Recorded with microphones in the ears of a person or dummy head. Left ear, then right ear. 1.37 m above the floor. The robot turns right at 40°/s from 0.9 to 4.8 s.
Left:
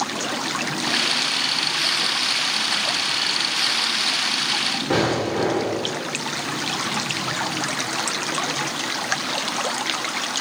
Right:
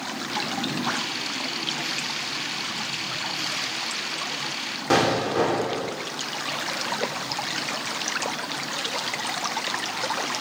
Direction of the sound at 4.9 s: 60° right (ahead or behind).